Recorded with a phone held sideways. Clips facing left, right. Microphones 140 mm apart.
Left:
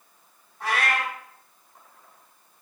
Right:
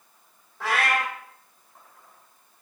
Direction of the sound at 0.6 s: 75° right (ahead or behind).